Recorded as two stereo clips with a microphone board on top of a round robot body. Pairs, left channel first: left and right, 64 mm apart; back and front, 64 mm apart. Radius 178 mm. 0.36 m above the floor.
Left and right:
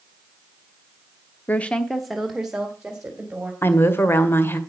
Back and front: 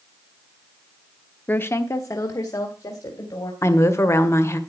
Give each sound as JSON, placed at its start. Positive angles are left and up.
{"t": 1.5, "sound": "a woman speaking", "azimuth_deg": 135, "distance_m": 1.0}
{"t": 3.6, "sound": "a woman speaking", "azimuth_deg": 140, "distance_m": 2.0}